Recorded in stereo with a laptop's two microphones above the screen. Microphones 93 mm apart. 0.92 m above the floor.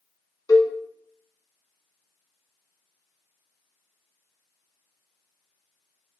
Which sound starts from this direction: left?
A cowbell, at 0.5 s.